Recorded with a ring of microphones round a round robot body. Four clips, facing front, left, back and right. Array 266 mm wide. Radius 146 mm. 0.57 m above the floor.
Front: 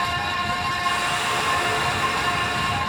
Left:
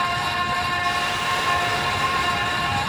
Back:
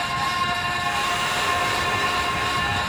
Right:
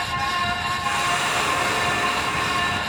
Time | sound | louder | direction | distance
0.8 | a hiss | even, even | 65° right | 2.5 m